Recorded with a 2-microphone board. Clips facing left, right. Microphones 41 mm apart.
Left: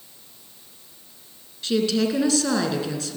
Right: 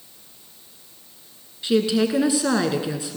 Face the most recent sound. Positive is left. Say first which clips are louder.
# right 2 dB
turn(degrees=-15)  # may be behind; listen again after turning